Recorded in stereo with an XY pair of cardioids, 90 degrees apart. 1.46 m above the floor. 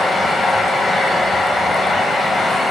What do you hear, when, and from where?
0.0 s a fan: 45° left, 0.7 m